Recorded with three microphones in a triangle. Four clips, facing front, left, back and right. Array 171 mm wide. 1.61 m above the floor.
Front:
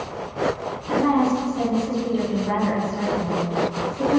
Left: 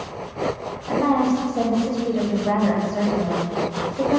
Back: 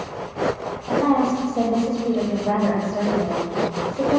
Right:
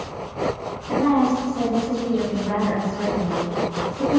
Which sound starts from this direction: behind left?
A woman speaking, at 0.9 s.